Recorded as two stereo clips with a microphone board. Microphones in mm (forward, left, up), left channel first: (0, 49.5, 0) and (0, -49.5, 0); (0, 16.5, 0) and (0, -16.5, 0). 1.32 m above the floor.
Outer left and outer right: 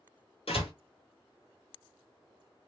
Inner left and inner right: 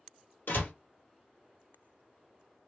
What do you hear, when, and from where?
0.5 s a door slam: 70° left (ahead or behind), 1.6 m